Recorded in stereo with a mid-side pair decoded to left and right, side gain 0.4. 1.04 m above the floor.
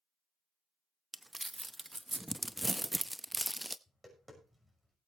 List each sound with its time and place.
1.1 s crumpling: 10° right, 0.7 m
3.9 s tapping: 10° right, 6 m